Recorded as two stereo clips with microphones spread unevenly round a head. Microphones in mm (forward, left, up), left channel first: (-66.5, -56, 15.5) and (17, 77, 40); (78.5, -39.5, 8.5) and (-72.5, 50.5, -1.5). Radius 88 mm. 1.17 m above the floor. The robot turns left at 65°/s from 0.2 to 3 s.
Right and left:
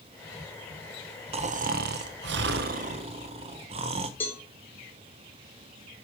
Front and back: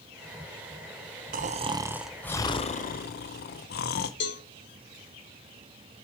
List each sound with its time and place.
1.3 s snoring: 110° left, 0.6 m; by 4.1 s straight ahead, 0.6 m
4.2 s a cowbell: 50° right, 1.4 m